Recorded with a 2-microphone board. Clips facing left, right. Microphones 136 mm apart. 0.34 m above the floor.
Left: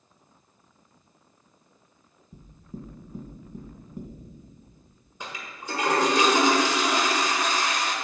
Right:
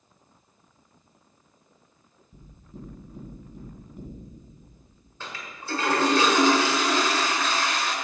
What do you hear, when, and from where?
2.3 s knocking: 40° left (ahead or behind), 2.5 m
5.2 s a toilet flushing: 15° left (ahead or behind), 1.6 m